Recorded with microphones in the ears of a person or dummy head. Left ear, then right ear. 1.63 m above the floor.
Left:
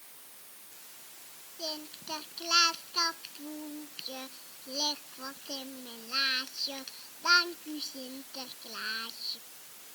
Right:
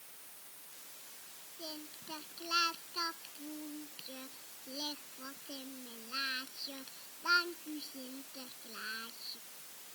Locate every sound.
1.6 s singing: 20° left (ahead or behind)